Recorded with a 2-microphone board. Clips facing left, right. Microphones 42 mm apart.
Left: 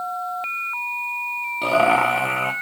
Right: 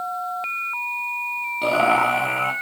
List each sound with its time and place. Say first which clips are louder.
1.6 s laughter: left 1 dB; 5° left (ahead or behind), 1.4 m